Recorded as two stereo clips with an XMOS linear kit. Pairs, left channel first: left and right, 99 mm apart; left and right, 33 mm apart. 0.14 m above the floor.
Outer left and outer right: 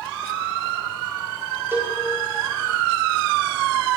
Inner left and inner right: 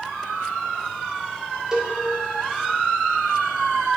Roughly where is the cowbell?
Right.